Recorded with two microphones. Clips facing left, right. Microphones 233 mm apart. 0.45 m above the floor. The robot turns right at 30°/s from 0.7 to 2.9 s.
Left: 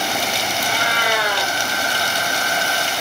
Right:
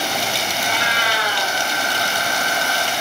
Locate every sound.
0.6 s a cat meowing: 40° left (ahead or behind), 3 m; by 1.5 s 65° left (ahead or behind), 3 m